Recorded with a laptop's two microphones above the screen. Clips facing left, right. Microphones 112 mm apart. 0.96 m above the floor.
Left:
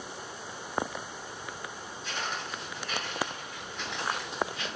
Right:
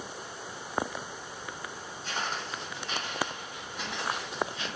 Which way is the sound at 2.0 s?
45° right (ahead or behind).